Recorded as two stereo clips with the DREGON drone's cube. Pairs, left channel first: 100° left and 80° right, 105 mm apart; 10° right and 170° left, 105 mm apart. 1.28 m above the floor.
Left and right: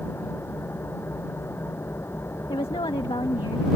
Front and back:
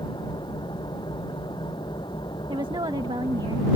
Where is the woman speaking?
130° left.